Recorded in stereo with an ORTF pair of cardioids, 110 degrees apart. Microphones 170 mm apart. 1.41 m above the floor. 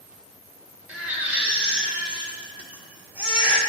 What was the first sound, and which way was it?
A baby crying, 10° right.